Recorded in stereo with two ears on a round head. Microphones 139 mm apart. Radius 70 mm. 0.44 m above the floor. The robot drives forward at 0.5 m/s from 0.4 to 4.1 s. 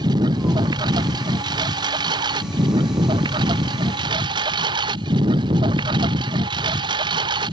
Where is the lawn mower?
25° right (ahead or behind); by 7.5 s 30° right (ahead or behind).